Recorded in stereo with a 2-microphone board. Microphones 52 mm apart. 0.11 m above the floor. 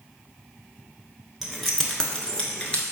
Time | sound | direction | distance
1.4 | keys jangling | 5° right (ahead or behind) | 0.9 m